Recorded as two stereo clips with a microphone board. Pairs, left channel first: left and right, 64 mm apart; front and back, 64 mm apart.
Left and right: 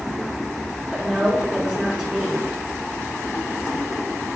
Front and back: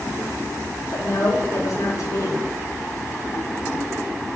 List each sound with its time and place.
0.9 s a woman speaking: 5° right, 4 m